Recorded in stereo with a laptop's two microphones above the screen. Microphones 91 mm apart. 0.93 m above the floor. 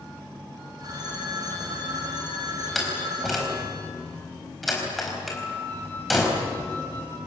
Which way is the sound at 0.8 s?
45° right (ahead or behind).